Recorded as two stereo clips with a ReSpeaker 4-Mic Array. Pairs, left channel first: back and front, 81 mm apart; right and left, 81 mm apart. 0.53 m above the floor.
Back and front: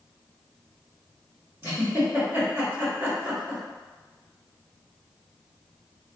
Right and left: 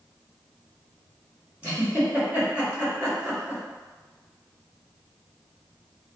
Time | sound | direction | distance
1.6 | a giggle | 35° left | 1.4 m